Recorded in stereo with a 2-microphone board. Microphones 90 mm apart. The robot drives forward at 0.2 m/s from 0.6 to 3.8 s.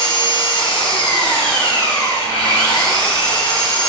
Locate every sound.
0.0 s an engine running: 60° left (ahead or behind), 1.2 m; by 3.9 s 50° left (ahead or behind), 1.4 m